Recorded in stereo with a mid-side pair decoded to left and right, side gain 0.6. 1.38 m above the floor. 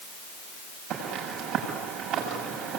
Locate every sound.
0.9 s footsteps: 65° right, 8 m